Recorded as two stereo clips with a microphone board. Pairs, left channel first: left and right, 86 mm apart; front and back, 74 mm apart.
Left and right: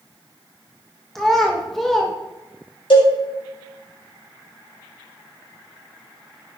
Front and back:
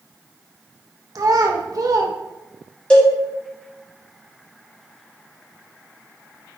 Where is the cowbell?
75° left, 2 m.